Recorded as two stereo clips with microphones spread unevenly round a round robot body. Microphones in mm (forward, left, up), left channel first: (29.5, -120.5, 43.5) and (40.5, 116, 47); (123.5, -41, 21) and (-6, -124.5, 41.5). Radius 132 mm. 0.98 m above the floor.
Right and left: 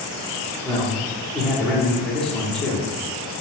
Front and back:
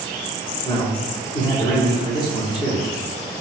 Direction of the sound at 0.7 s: 5° right.